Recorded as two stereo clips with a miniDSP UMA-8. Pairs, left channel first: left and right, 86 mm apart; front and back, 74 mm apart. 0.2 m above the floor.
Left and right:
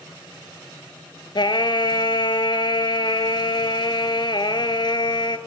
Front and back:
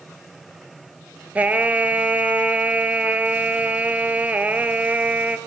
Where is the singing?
110° left, 1.0 m.